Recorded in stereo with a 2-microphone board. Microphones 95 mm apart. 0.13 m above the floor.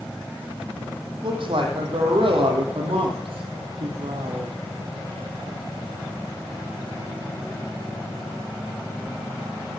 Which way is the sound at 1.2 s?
60° right (ahead or behind).